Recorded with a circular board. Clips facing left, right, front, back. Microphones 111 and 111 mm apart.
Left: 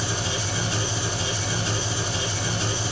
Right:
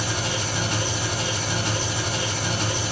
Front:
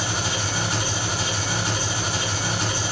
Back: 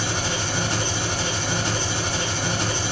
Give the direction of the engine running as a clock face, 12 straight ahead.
3 o'clock.